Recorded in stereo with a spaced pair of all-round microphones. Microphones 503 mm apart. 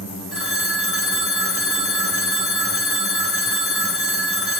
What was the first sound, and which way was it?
A phone ringing, 50° left (ahead or behind).